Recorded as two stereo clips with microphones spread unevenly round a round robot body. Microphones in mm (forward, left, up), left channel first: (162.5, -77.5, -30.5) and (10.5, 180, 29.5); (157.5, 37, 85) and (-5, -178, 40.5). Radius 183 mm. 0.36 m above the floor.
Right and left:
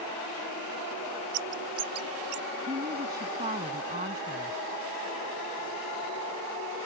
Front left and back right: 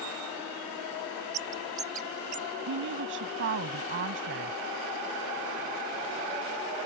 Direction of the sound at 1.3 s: 165° left.